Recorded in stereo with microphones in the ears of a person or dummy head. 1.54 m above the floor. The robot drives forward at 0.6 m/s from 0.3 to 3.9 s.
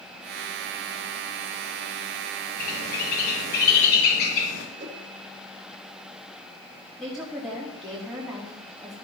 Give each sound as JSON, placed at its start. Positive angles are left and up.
{"t": 2.6, "sound": "a bird", "side_deg": 50, "distance_m": 6.5}
{"t": 4.8, "sound": "a whoosh", "side_deg": -40, "distance_m": 1.9}
{"t": 7.0, "sound": "a woman speaking", "side_deg": -10, "distance_m": 3.0}